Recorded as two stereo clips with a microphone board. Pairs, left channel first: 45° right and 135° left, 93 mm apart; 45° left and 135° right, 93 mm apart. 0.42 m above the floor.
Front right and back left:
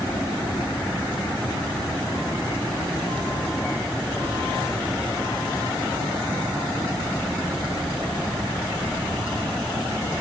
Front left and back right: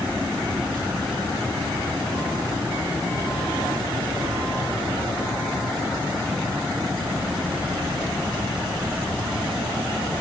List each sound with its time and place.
Only background noise.